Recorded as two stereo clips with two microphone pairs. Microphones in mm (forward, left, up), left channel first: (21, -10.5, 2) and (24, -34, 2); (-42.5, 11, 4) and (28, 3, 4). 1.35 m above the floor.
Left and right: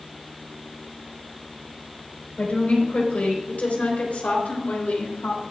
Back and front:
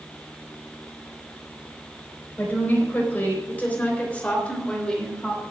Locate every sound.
2.4 s a woman speaking: 115° left, 4 m; by 5.4 s 95° left, 2.5 m